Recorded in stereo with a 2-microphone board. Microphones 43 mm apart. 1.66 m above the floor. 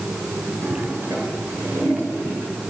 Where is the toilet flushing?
70° right (ahead or behind), 6.5 m.